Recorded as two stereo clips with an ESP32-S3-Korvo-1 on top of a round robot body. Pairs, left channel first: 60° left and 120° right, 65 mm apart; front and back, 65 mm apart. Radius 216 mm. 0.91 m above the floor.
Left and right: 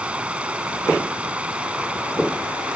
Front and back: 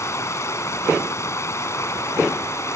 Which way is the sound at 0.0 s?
45° right.